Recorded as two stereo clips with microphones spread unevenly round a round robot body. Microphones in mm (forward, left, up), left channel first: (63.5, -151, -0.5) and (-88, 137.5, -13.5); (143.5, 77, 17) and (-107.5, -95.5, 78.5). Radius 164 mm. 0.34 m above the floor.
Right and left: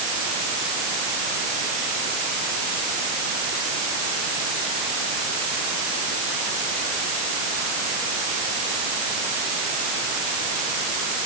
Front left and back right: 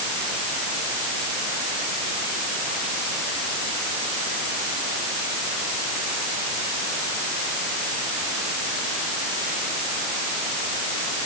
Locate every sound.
Only background noise.